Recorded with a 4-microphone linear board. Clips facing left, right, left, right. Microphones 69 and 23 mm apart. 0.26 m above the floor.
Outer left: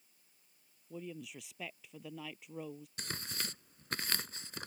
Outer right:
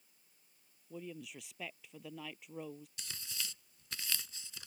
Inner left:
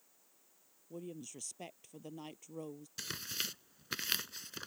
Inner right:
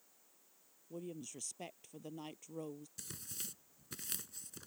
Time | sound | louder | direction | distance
0.9 | a woman speaking | outer left 1 dB, even | centre (ahead or behind) | ?
3.0 | tearing paper | outer left 5 dB, inner left 14 dB | 55° left (ahead or behind) | ?